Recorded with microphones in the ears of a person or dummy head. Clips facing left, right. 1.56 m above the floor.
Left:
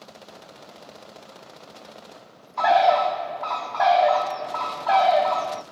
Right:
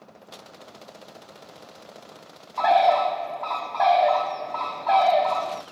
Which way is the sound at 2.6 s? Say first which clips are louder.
Left 1 dB; 5° left (ahead or behind).